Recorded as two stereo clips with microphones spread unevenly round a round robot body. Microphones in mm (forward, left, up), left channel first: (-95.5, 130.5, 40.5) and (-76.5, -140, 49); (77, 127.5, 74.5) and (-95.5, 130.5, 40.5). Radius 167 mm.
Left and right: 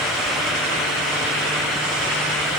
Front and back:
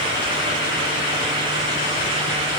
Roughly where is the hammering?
No hammering in this recording.